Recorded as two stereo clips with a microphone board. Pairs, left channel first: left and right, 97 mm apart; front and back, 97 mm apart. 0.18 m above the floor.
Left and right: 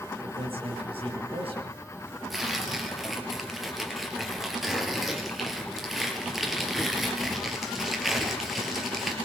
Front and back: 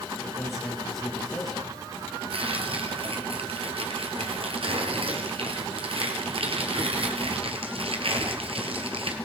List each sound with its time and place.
0.2 s a man speaking: 90° right, 4 m
2.3 s tearing paper: straight behind, 3.5 m